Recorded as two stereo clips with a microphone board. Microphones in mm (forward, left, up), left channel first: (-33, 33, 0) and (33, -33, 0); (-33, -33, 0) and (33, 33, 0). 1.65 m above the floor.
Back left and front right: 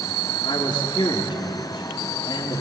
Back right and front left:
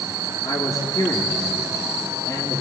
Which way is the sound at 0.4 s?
Straight behind.